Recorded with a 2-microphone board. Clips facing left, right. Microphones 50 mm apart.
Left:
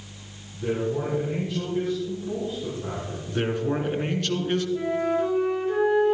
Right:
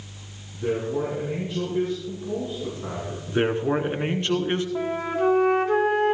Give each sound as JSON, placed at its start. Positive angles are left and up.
{"t": 0.5, "sound": "a man speaking", "side_deg": -15, "distance_m": 5.5}
{"t": 3.3, "sound": "a man speaking", "side_deg": -30, "distance_m": 1.9}
{"t": 4.8, "sound": "a flute", "side_deg": -80, "distance_m": 1.8}